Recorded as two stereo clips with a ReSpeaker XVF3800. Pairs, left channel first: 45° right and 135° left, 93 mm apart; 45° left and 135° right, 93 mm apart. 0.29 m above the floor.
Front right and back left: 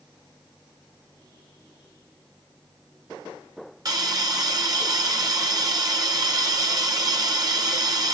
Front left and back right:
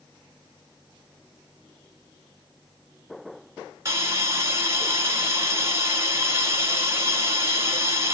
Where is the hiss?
170° left, 1.2 m.